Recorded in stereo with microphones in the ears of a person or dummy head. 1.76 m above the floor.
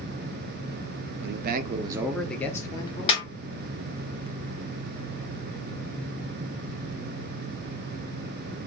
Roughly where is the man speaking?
Right.